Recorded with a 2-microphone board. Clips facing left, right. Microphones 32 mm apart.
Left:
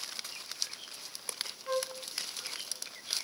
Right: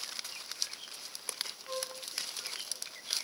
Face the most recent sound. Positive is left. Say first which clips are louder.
# left 8 dB
turn(degrees=45)  # may be behind; listen again after turning